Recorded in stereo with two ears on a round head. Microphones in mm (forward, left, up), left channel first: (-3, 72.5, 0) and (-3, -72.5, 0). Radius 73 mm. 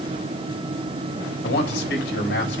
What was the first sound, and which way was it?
A man speaking, 75° left (ahead or behind).